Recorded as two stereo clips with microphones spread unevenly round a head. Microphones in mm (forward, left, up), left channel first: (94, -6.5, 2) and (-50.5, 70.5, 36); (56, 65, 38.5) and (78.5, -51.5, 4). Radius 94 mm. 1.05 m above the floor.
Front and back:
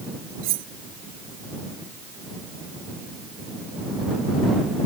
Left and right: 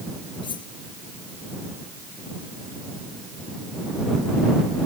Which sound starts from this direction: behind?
Cutlery clinking, at 0.4 s.